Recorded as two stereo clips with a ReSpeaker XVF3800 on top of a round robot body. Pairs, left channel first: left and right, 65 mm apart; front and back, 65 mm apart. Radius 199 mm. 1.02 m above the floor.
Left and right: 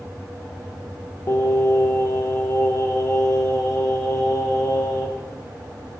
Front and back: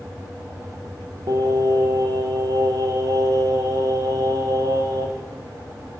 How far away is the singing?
About 0.6 m.